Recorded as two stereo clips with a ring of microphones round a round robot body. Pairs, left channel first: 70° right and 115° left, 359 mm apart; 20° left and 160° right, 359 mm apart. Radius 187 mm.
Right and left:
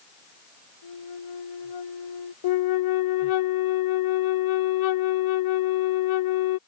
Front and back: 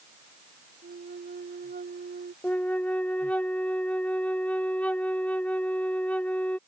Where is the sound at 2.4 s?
65° right.